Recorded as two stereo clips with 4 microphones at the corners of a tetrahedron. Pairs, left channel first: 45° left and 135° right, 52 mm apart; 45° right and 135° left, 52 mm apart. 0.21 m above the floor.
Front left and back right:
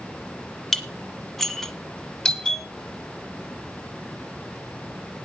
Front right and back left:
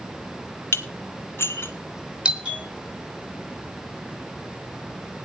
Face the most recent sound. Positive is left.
turn(degrees=95)